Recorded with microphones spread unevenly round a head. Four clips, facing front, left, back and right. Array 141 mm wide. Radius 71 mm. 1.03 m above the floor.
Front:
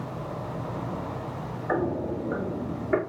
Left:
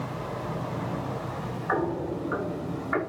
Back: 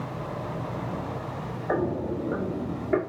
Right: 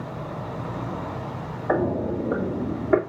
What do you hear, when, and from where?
1.7 s footsteps: 100° right, 3 m; by 3.0 s 85° right, 3 m